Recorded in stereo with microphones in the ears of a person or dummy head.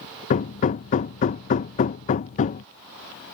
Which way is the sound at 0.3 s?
35° left (ahead or behind).